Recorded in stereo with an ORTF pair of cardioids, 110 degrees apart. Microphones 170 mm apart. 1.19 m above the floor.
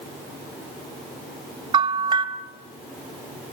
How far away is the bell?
About 2.5 m.